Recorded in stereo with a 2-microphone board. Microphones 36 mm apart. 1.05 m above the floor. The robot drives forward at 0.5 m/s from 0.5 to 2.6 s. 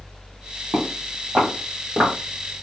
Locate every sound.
0.7 s footsteps: 40° right (ahead or behind), 1.5 m